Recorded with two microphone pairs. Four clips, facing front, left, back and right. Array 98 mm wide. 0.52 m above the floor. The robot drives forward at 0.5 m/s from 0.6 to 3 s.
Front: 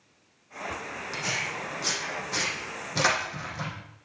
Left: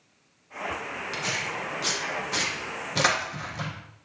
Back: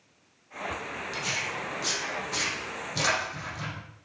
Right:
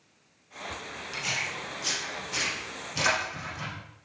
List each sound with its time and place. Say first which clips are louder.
1.1 s tearing paper: left 2 dB, front 2 dB; 55° left, 5.5 m; by 3.7 s 65° left, 5 m